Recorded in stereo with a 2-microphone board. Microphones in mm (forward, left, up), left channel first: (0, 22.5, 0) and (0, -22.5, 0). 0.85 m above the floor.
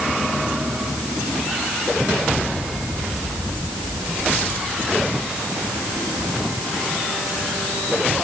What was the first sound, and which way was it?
Only background noise.